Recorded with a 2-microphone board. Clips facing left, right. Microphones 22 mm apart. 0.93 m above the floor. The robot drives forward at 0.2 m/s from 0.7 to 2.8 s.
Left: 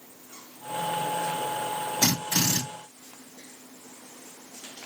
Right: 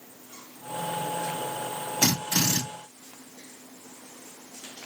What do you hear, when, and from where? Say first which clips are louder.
2.0 s a drill: right 1 dB; 35° right (ahead or behind), 1.5 m; by 2.6 s 30° right (ahead or behind), 1.6 m